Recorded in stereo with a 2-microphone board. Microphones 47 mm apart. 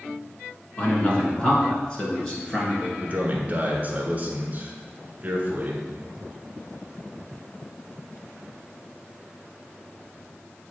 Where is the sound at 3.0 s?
30° right (ahead or behind), 1.5 m.